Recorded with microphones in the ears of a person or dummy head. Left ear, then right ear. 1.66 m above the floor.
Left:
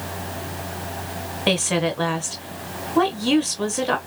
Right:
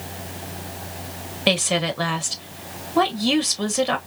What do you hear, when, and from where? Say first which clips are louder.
1.5 s a woman speaking: right 1 dB; 5° right (ahead or behind), 0.6 m